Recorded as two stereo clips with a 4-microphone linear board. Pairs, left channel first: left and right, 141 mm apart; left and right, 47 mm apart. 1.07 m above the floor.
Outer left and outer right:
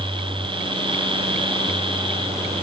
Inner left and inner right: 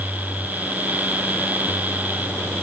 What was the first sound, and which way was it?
Only background noise.